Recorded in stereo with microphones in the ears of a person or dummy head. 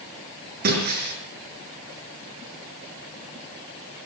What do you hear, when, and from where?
0.6 s breaking glass: 45° right (ahead or behind), 5.5 m